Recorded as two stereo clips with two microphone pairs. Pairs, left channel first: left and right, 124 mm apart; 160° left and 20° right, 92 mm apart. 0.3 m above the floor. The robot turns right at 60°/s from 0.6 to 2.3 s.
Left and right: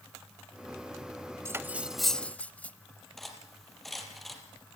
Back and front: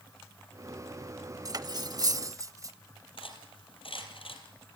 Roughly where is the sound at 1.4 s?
Ahead right.